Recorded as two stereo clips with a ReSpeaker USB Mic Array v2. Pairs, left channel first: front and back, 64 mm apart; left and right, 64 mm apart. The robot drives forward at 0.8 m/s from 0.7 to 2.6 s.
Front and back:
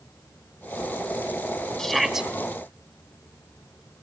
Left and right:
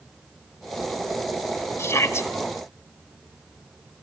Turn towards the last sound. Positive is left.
turn(degrees=120)